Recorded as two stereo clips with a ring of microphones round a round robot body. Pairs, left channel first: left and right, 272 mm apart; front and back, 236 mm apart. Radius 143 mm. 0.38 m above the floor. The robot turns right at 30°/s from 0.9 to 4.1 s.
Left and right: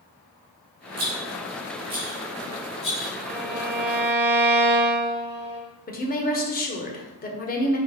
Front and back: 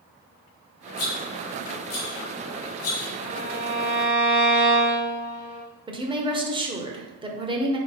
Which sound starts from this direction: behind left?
A woman speaking, at 5.9 s.